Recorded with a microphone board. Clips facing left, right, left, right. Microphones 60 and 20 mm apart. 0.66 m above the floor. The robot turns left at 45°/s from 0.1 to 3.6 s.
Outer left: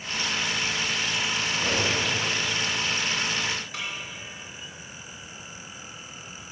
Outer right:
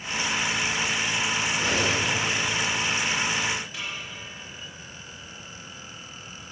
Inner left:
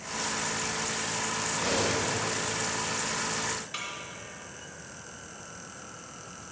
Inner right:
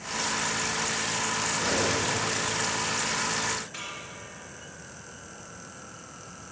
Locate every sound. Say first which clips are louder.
1.5 s cutlery clinking: even, even; 85° left, 2.5 m; by 2.0 s 60° left (ahead or behind), 2.5 m
3.7 s a snare drum: outer left 1 dB, inner left 1 dB; 75° left (ahead or behind), 2.5 m